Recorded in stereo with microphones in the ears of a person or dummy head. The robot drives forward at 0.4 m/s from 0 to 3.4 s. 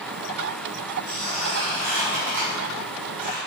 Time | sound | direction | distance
1.1 | a squeak | 15° right (ahead or behind) | 1.3 m